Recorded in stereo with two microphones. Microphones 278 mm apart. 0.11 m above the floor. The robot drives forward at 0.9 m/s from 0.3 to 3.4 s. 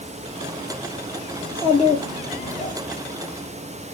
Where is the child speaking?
20° left (ahead or behind), 3 m; by 2.8 s 30° left (ahead or behind), 1.8 m.